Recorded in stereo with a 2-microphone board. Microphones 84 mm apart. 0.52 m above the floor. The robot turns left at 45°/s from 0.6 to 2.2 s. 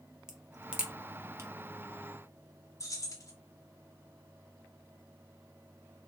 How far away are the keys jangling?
About 0.9 m.